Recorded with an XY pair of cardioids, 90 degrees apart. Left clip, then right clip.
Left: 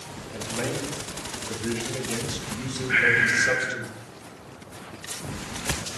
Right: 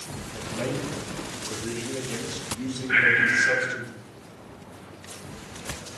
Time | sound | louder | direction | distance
0.3 | a man speaking | left 1 dB | 50° left | 8.5 m
2.9 | breathing | right 1 dB | 5° right | 2 m